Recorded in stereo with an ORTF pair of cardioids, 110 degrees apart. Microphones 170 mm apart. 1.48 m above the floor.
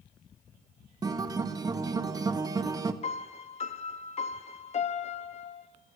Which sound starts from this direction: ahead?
A guitar, at 1.0 s.